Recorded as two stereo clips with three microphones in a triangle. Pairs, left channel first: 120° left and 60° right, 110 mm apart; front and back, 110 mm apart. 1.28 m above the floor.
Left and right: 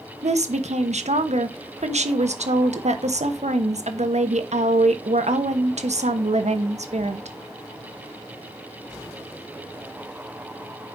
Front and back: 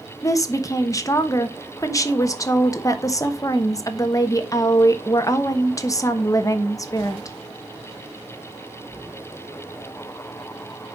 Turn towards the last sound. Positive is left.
turn(degrees=-60)